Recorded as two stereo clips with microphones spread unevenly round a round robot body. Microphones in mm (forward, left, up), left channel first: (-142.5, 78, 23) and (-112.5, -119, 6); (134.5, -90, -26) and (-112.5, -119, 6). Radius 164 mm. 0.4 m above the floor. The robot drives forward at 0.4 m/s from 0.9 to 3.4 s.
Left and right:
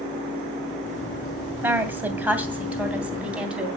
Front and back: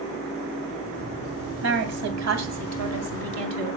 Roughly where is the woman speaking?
Behind.